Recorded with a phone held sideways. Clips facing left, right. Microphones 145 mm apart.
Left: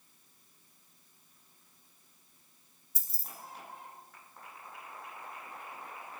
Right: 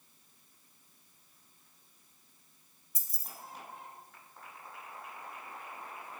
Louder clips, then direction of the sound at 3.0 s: Left 1 dB; 30° left (ahead or behind).